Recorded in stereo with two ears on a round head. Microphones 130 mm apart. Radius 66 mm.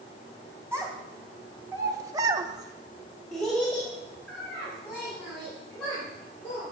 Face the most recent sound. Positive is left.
turn(degrees=10)  # may be behind; listen again after turning